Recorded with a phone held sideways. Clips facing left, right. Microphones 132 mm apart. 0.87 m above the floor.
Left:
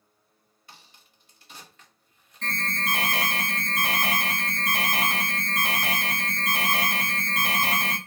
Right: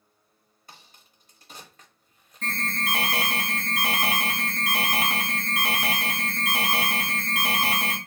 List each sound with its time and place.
0.7 s a crack: 40° right (ahead or behind), 0.9 m
2.4 s an alarm: 5° right (ahead or behind), 1.1 m